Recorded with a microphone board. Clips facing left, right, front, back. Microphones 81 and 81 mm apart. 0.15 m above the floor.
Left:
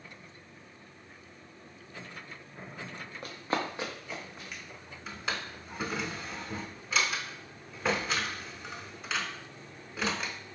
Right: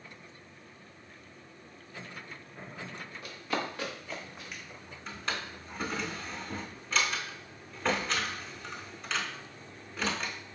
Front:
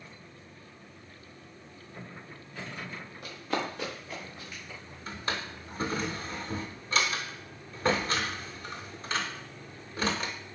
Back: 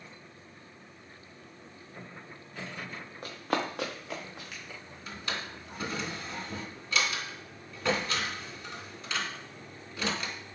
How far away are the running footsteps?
About 0.9 m.